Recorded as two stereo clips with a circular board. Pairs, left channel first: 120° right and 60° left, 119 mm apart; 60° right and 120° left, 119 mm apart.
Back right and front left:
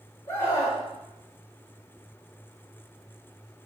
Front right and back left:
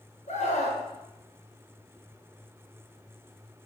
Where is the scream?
55° right, 7 m.